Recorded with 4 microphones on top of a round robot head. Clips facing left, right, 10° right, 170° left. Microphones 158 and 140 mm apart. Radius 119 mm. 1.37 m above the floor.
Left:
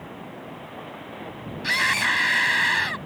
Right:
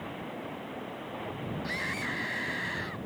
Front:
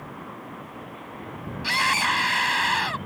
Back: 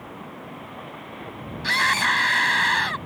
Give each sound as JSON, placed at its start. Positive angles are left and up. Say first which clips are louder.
{"t": 1.6, "sound": "a scream", "louder": "left 6 dB, back 1 dB", "azimuth_deg": 70}